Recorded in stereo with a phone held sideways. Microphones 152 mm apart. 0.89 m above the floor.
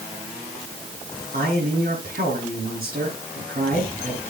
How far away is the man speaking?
About 10 m.